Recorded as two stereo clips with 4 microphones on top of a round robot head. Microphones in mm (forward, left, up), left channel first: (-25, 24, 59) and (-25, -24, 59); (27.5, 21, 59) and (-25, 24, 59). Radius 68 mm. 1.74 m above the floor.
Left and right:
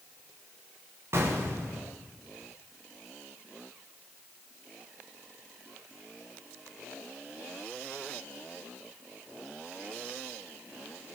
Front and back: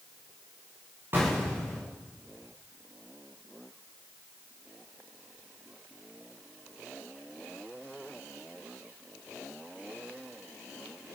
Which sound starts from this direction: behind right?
An explosion, at 1.1 s.